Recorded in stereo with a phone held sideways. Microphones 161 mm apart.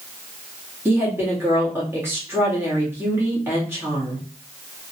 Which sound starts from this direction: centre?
A woman speaking, at 0.8 s.